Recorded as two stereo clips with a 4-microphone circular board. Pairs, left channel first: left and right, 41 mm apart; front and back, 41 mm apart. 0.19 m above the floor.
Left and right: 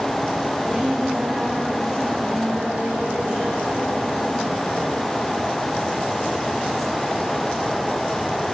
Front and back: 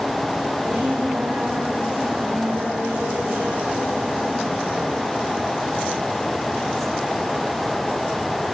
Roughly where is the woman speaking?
Behind.